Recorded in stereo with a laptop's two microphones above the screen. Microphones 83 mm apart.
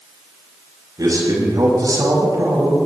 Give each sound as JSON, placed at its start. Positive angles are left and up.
{"t": 1.0, "sound": "a man speaking", "side_deg": -50, "distance_m": 5.5}